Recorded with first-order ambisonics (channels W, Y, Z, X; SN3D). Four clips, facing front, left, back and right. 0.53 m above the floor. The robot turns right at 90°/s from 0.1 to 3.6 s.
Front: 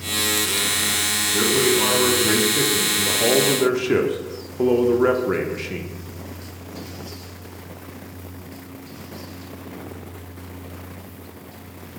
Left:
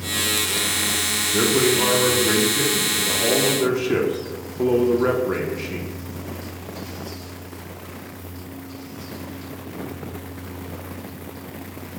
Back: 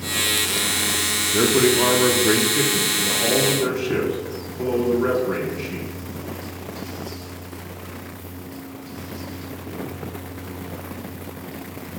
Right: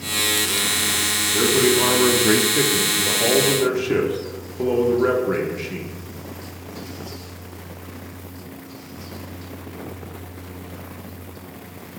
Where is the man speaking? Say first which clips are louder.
Right 1 dB, back 2 dB; 155° left, 0.7 m; by 5.9 s straight ahead, 0.7 m.